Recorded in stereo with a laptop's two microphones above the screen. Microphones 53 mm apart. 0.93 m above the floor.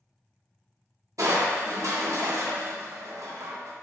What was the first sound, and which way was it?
Crushing, 85° right.